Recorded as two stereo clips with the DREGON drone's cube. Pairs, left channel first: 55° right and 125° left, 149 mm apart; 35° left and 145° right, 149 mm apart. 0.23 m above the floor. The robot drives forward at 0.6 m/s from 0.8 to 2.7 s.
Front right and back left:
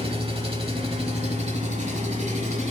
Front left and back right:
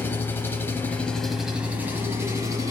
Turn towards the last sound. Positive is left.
turn(degrees=155)